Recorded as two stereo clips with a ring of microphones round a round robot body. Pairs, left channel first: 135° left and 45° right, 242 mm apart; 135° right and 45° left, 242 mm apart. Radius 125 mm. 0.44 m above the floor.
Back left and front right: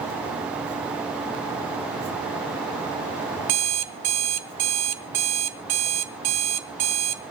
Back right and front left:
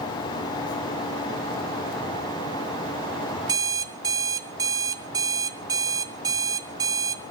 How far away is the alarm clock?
About 1.1 m.